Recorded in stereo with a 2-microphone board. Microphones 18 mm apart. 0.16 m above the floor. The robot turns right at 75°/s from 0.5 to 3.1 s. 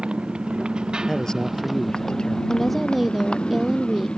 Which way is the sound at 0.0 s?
85° right.